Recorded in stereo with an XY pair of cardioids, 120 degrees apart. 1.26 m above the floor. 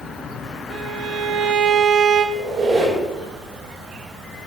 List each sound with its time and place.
0.7 s a violin: 65° right, 0.6 m
2.4 s a squeak: 70° right, 3 m